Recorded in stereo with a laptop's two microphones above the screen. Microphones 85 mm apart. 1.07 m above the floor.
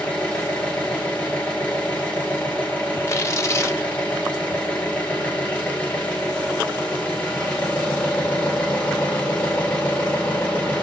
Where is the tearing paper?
35° left (ahead or behind), 0.7 m.